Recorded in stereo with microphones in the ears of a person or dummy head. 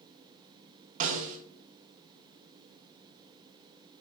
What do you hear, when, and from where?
1.0 s a snare drum: 45° right (ahead or behind), 1.3 m